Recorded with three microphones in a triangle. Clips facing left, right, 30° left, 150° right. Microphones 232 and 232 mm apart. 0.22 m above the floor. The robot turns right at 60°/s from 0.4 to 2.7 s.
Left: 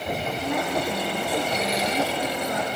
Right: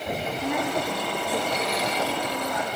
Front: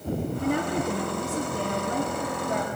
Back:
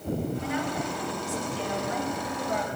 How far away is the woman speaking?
About 3.5 m.